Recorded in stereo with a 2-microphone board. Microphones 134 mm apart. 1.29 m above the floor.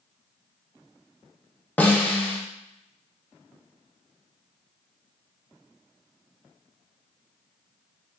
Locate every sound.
1.8 s a snare drum: 15° left (ahead or behind), 0.5 m